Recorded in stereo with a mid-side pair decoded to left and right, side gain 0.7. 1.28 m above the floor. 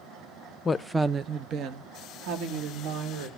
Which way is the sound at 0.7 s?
30° left.